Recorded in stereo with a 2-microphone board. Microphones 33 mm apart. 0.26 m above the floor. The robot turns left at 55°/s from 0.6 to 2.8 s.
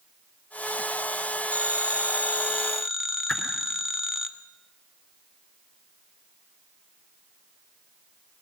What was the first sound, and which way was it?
A phone ringing, 105° right.